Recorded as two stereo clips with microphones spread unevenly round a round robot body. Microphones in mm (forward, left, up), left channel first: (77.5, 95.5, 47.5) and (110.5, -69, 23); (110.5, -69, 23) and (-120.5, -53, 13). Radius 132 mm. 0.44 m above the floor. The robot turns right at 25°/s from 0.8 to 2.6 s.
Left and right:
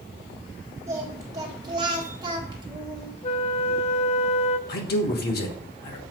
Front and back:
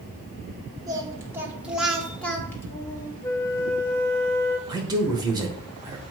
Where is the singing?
125° right, 1.5 m; by 3.1 s 80° right, 1.5 m.